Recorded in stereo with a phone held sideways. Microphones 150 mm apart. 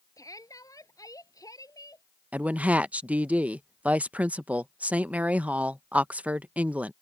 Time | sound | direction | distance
0.2 | a shout | 20° left (ahead or behind) | ?
2.3 | a woman speaking | 10° right (ahead or behind) | ?